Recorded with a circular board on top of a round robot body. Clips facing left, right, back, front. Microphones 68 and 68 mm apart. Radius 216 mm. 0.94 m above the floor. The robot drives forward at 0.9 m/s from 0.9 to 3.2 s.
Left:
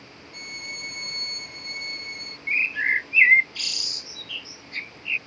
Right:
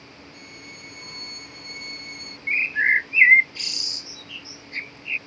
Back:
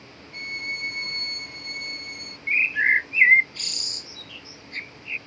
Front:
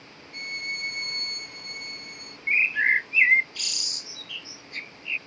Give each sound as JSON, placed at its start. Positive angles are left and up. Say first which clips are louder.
{"t": 0.3, "sound": "a violin", "louder": "left 9 dB, back 2 dB", "azimuth_deg": 115}
{"t": 2.5, "sound": "a bird", "louder": "right 3 dB, back 1 dB", "azimuth_deg": -55}